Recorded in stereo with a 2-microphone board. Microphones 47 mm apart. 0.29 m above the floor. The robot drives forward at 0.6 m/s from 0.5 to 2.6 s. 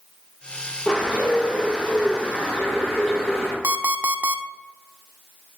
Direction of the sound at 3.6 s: 60° right (ahead or behind).